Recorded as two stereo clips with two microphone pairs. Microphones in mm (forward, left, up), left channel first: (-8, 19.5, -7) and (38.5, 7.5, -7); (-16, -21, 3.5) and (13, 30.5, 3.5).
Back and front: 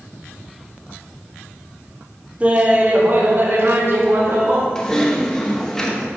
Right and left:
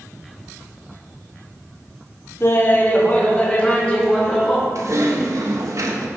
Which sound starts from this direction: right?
Laughter, at 2.4 s.